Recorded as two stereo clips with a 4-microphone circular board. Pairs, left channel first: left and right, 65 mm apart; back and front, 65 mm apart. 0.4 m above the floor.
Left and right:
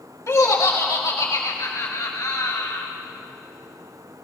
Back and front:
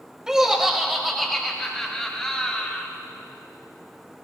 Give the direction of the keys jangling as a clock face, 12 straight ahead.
I don't hear keys jangling.